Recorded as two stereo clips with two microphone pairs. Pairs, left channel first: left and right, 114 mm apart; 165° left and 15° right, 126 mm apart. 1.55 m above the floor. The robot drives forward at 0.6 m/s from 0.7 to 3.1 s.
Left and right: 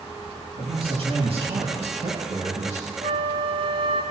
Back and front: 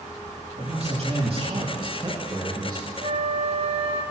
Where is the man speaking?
50° right, 2.5 m; by 2.9 s 85° right, 1.8 m.